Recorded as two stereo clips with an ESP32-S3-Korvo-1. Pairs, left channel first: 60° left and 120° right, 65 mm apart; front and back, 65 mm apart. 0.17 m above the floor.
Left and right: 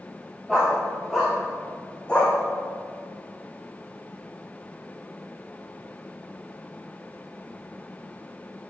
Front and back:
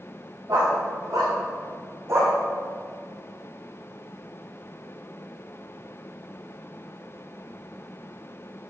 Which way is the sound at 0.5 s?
150° left.